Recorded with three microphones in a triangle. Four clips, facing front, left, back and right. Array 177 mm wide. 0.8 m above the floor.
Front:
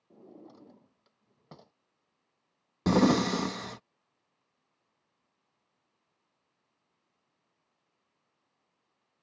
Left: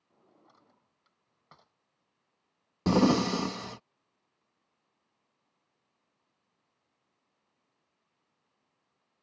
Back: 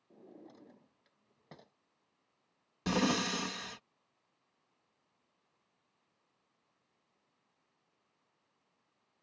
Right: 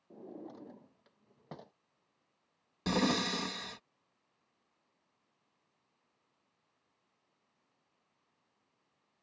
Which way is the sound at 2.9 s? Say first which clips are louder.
Left 8 dB, front 8 dB; 45° left.